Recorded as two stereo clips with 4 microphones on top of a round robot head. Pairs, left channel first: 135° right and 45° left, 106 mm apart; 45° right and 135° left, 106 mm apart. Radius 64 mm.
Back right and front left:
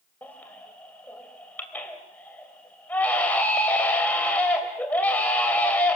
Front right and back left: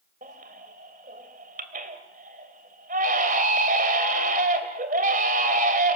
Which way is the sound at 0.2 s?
150° left.